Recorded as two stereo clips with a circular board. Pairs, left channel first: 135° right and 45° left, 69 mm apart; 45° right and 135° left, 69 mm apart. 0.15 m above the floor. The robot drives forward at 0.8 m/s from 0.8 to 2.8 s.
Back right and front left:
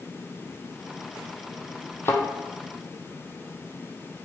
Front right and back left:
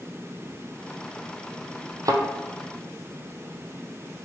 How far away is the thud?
About 0.6 m.